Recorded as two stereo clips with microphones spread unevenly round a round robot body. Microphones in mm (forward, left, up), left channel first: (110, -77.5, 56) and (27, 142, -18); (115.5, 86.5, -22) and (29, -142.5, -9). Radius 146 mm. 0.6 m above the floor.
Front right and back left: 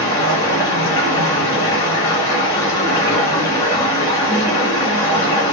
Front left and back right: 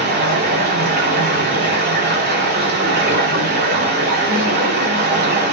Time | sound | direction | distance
0.0 | running water | 165° right | 1.1 m